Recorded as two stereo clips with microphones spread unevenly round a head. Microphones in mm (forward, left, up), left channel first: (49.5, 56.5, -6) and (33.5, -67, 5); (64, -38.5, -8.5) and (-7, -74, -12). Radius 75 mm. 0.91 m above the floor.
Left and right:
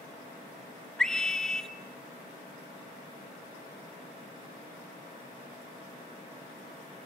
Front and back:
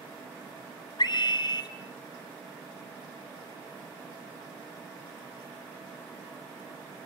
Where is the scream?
Straight ahead, 3 m.